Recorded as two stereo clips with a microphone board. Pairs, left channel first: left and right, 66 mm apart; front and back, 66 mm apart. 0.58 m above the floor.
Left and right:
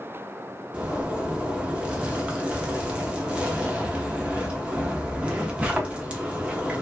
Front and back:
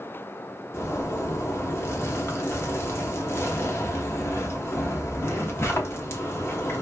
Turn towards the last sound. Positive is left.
turn(degrees=-25)